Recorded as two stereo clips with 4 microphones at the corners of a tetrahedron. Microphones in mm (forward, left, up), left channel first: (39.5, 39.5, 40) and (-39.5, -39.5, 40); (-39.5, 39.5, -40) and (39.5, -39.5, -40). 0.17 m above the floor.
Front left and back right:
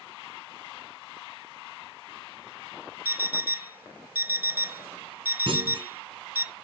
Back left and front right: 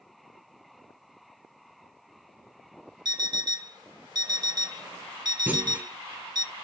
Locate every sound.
3.0 s an alarm clock: 70° right, 0.6 m
5.5 s a clunk: 115° right, 1.4 m